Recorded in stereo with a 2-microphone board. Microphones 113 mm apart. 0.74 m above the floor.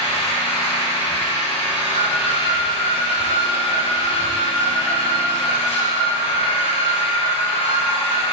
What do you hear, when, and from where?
0.0 s an engine running: 70° left (ahead or behind), 2.5 m
1.9 s an alarm: 60° left (ahead or behind), 3.5 m